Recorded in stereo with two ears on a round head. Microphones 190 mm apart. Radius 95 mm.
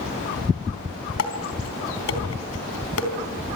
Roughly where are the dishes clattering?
Left.